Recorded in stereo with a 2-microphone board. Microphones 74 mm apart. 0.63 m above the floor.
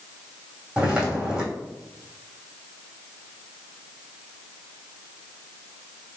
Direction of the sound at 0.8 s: 15° right (ahead or behind).